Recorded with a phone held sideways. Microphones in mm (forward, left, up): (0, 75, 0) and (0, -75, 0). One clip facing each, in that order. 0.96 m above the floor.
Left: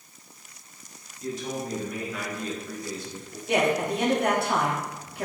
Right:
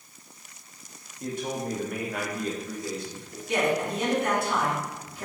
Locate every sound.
1.2 s a man speaking: 55° right (ahead or behind), 2 m; by 3.4 s 5° right (ahead or behind), 1.7 m
3.5 s a man speaking: 65° left (ahead or behind), 2 m